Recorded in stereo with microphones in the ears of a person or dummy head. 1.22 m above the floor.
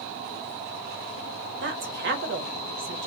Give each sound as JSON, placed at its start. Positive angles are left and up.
{"t": 1.6, "sound": "a woman speaking", "side_deg": -55, "distance_m": 1.0}